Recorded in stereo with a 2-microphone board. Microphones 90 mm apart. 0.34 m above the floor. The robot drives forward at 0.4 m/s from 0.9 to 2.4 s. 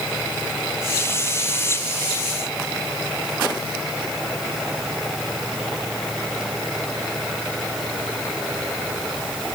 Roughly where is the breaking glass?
I don't hear breaking glass.